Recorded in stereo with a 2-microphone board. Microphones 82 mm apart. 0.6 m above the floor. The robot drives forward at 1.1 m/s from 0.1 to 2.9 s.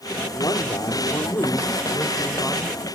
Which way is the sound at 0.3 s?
55° left (ahead or behind).